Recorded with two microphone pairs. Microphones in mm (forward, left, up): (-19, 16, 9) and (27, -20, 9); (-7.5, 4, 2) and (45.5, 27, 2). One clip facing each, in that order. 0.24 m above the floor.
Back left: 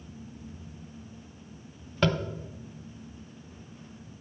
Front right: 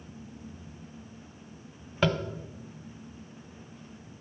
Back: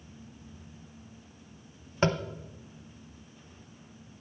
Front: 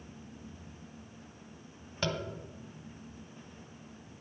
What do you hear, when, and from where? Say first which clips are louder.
2.0 s tapping: even, back 7 dB; 120° right, 0.8 m